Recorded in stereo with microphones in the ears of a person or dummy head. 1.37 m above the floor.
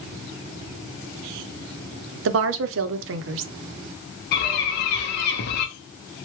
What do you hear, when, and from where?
2.2 s a woman speaking: 65° right (ahead or behind), 0.5 m
4.3 s a bird: 55° left (ahead or behind), 0.8 m